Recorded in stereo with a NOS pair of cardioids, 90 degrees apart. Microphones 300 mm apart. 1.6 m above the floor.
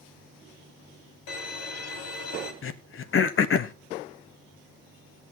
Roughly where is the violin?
Ahead left.